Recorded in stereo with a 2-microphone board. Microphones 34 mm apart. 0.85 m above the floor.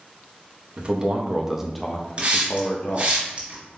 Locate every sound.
0.8 s a man speaking: 40° right (ahead or behind), 0.8 m; by 3.2 s 55° left (ahead or behind), 0.8 m
2.2 s a hiss: 35° right (ahead or behind), 2 m